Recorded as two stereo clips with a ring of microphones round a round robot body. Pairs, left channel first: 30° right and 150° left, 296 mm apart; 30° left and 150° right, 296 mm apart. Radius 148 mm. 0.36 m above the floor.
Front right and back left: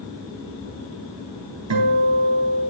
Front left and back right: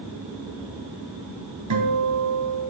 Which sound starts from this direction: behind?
A guitar, at 1.7 s.